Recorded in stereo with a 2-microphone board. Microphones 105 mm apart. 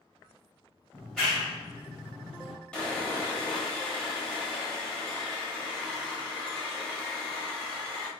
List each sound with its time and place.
0.9 s a clap: centre (ahead or behind), 1.9 m
2.7 s sawing: 10° left (ahead or behind), 1.4 m